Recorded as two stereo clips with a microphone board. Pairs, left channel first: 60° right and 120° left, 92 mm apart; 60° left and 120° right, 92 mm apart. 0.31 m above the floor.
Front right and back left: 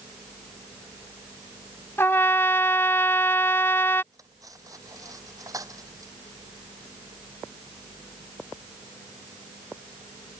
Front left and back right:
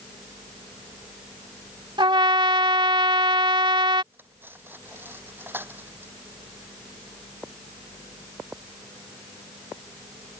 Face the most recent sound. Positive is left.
turn(degrees=170)